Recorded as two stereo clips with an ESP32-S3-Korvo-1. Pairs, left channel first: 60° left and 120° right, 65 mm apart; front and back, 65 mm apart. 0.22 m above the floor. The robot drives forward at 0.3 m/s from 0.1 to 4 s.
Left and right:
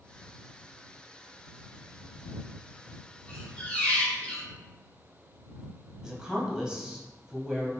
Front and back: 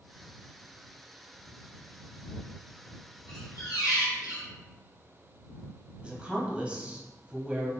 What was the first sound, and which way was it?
A squeak, 15° right.